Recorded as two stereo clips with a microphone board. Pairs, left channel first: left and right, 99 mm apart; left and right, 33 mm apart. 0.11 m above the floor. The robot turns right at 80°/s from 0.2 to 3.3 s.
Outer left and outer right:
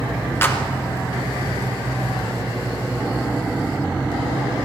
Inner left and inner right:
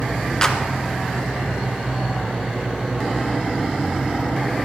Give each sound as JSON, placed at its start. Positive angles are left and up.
{"t": 0.4, "sound": "a clap", "side_deg": 25, "distance_m": 1.3}